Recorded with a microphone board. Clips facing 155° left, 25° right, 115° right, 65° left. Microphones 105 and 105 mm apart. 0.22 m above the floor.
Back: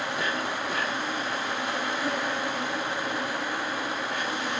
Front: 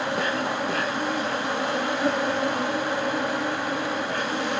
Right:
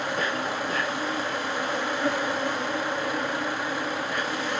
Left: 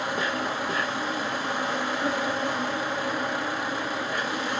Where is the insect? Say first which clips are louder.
Front 4 dB, even; 10° right, 8 m.